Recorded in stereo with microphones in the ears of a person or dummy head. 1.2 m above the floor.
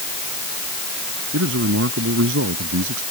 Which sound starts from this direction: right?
A man speaking, at 1.3 s.